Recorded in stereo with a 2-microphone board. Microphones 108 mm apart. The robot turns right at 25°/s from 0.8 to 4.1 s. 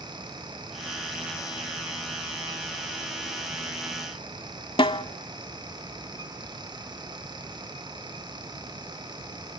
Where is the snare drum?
55° left (ahead or behind), 0.8 m.